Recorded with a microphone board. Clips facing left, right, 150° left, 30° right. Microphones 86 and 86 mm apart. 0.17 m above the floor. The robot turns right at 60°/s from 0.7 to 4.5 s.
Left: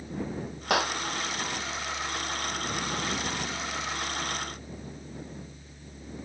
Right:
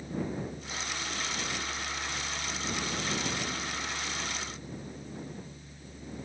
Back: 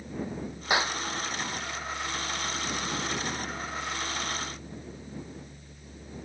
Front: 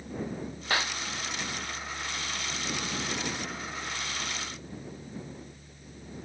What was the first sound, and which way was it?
A clap, 75° left.